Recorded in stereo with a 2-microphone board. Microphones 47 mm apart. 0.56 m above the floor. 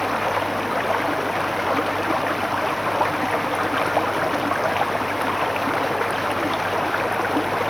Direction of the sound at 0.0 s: Centre (ahead or behind).